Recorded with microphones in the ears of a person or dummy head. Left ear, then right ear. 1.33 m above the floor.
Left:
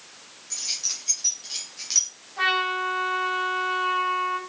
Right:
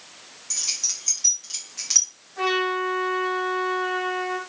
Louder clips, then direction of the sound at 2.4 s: Even; 15° right (ahead or behind).